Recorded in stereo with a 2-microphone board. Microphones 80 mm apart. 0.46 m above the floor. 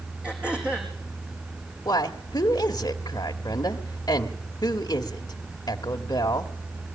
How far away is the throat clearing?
About 4.5 m.